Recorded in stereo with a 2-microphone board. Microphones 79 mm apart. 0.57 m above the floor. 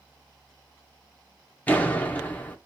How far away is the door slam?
About 0.6 m.